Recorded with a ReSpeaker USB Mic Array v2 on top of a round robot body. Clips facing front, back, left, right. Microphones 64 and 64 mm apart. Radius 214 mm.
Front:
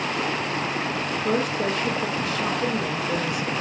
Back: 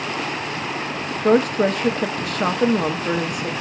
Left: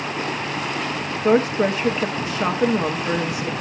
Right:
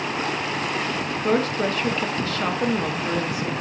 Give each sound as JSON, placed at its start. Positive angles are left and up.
{"t": 1.2, "sound": "a woman speaking", "azimuth_deg": 160, "distance_m": 1.1}